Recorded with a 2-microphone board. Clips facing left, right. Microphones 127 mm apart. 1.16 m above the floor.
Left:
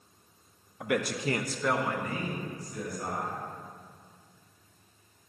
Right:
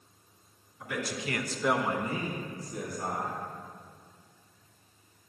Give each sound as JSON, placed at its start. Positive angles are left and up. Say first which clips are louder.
{"t": 0.8, "sound": "a man speaking", "louder": "left 6 dB", "side_deg": 70, "distance_m": 1.0}